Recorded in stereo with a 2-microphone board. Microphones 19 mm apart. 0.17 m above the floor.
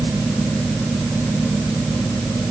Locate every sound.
Only background noise.